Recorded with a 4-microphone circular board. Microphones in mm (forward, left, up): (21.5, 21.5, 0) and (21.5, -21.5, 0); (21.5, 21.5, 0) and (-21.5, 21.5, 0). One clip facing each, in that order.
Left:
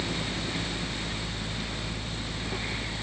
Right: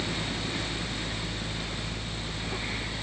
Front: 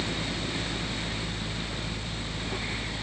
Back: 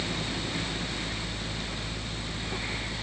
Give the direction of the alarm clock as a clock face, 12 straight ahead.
I don't hear an alarm clock.